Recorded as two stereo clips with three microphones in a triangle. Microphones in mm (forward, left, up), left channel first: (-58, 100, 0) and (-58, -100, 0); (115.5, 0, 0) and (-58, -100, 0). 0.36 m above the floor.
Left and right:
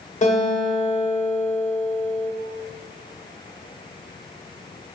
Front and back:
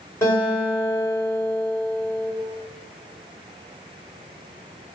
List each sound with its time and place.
0.2 s a guitar: 95° left, 1.1 m